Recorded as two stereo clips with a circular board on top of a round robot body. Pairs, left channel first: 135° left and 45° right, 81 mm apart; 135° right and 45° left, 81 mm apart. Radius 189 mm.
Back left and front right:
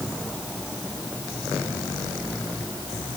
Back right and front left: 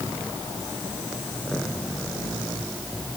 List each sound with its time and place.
Only background noise.